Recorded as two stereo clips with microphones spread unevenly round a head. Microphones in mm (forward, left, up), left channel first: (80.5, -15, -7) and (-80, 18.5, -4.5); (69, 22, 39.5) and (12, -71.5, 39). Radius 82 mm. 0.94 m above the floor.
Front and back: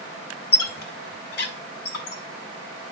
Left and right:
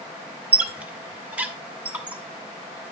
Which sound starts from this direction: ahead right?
A squeak, at 0.5 s.